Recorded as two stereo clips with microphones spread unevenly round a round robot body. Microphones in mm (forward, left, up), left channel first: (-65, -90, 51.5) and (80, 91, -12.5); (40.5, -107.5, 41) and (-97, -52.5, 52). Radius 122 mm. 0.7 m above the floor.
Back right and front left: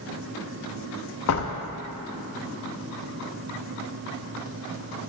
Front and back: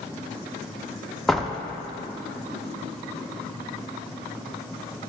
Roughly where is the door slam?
Right.